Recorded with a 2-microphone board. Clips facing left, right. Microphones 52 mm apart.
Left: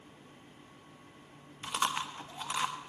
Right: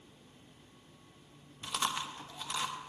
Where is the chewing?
25° left (ahead or behind), 0.8 m.